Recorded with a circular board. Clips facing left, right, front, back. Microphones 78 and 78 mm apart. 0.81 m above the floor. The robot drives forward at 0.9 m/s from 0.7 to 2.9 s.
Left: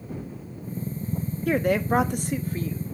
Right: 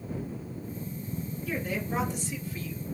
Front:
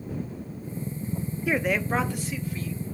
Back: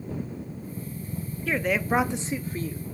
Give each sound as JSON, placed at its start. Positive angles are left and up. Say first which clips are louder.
{"t": 1.5, "sound": "a woman speaking", "louder": "left 11 dB, even", "azimuth_deg": 75, "distance_m": 0.9}